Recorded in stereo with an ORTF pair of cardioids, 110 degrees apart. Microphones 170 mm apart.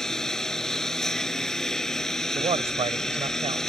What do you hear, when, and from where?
0.0 s a lawn mower: 5° left
2.4 s a man speaking: 35° right